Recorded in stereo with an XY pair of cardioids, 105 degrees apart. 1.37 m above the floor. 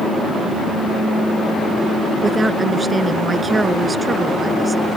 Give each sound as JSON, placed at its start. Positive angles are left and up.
{"t": 2.2, "sound": "a woman speaking", "azimuth_deg": -25}